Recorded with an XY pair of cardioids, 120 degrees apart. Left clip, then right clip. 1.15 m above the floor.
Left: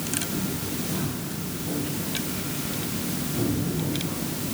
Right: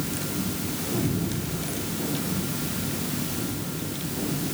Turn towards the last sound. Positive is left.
No sound to turn to.